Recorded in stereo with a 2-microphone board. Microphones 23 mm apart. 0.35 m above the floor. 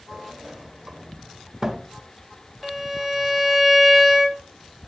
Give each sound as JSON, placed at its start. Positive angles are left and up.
{"t": 0.1, "sound": "a sliding door", "side_deg": -25, "distance_m": 0.6}
{"t": 2.6, "sound": "a violin", "side_deg": -5, "distance_m": 0.8}